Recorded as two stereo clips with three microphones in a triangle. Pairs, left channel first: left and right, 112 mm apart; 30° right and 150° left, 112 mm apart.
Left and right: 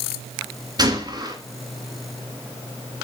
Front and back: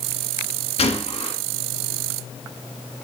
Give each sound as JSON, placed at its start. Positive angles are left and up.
{"t": 0.8, "sound": "a gunshot", "azimuth_deg": -40, "distance_m": 2.5}